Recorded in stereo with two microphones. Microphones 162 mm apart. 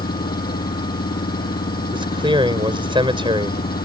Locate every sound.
0.0 s an engine running: 70° left (ahead or behind)
1.9 s a man speaking: 30° right (ahead or behind)